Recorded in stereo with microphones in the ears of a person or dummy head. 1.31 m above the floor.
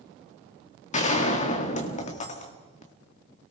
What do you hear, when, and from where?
0.9 s a gunshot: 40° left (ahead or behind), 1.9 m